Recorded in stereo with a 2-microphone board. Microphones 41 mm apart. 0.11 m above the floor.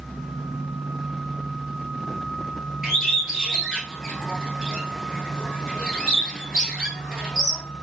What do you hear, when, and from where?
2.8 s a bird: 10° right (ahead or behind), 1.0 m